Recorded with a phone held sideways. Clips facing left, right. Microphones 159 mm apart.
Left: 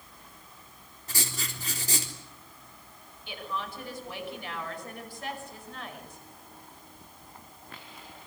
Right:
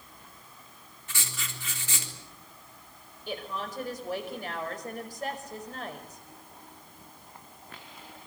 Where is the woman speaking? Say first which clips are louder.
Right 1 dB; 45° right (ahead or behind), 5.5 m.